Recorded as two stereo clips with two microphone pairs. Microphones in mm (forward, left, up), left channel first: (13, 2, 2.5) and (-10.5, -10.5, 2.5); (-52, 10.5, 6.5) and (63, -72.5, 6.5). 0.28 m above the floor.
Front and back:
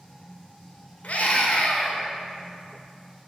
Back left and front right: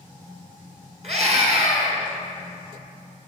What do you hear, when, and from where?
1.0 s a scream: straight ahead, 3 m